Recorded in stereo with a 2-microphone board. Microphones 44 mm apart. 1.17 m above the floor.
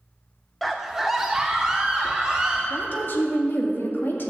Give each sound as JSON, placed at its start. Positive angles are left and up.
{"t": 0.6, "sound": "a scream", "side_deg": 5, "distance_m": 0.5}
{"t": 2.7, "sound": "a woman speaking", "side_deg": 55, "distance_m": 2.0}